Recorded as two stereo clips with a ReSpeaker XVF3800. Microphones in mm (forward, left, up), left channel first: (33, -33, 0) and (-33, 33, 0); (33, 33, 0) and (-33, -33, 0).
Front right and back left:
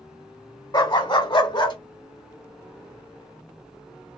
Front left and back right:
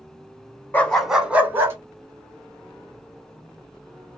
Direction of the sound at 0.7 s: 20° right.